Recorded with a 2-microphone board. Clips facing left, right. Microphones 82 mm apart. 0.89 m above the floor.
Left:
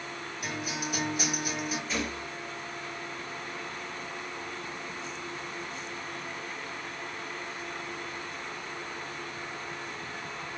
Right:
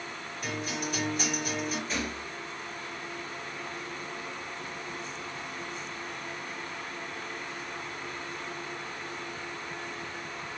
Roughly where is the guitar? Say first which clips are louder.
Right 1 dB; centre.